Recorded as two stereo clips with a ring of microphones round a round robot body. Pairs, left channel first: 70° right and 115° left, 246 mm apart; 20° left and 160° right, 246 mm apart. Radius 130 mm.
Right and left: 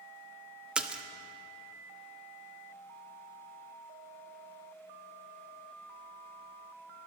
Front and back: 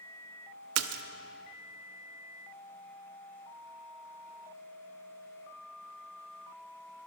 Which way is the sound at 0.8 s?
160° right.